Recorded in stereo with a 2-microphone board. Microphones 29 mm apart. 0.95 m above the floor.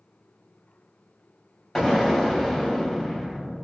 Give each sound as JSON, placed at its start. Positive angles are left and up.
{"t": 1.8, "sound": "an explosion", "side_deg": 5, "distance_m": 1.0}